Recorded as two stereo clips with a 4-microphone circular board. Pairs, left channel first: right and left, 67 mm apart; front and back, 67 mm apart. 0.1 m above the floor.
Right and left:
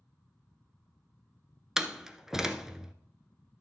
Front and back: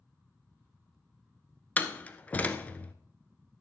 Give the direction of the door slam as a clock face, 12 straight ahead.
11 o'clock.